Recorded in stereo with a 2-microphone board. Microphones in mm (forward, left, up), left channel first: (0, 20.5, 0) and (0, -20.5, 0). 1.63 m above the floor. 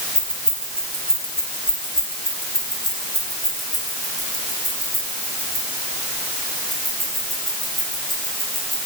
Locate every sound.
0.1 s keys jangling: 25° left (ahead or behind), 3 m; by 8.8 s centre (ahead or behind), 11 m